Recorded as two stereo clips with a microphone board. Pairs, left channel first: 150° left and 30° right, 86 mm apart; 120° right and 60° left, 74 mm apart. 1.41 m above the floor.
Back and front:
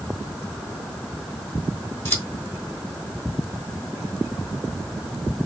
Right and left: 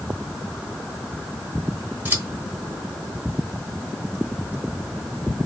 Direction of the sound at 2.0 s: 100° left.